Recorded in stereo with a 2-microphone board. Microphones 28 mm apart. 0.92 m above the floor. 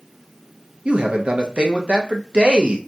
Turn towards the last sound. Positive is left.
turn(degrees=-40)  # may be behind; listen again after turning